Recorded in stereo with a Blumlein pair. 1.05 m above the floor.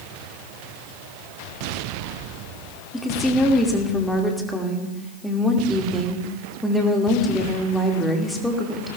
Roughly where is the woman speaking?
Ahead.